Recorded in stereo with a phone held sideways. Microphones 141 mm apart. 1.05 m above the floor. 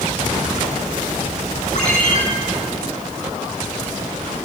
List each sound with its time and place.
1.8 s a ringtone: 55° left (ahead or behind), 5.5 m